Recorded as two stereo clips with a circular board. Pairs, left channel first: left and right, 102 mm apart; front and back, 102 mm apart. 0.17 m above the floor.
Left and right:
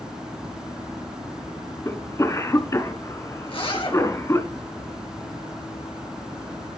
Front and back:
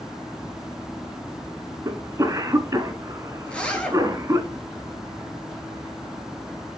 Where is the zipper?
75° left, 2.5 m.